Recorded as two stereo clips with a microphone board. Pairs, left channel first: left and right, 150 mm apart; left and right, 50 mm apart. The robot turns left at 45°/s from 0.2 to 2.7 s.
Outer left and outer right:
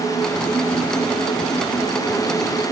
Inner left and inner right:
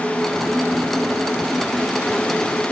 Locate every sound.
Only background noise.